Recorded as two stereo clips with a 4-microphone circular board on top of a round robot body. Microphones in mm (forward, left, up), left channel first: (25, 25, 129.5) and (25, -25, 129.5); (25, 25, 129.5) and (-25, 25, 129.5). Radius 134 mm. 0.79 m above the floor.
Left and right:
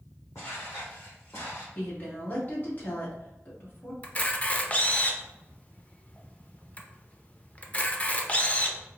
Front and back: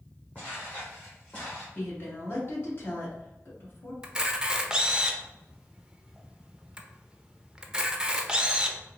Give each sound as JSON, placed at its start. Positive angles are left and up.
{"t": 0.3, "sound": "footsteps", "azimuth_deg": 60, "distance_m": 1.6}
{"t": 1.8, "sound": "a woman speaking", "azimuth_deg": 40, "distance_m": 1.8}
{"t": 4.0, "sound": "a camera shutter", "azimuth_deg": 115, "distance_m": 0.8}